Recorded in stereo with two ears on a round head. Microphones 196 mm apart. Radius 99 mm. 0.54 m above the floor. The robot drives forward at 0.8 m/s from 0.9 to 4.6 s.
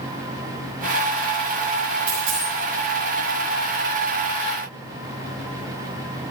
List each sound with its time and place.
2.1 s a dropped coin: 65° right (ahead or behind), 5 m; by 2.5 s 70° right (ahead or behind), 5 m